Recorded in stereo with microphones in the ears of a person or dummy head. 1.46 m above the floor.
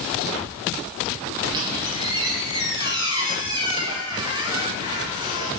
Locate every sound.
1.5 s a squeak: 20° right (ahead or behind), 2.5 m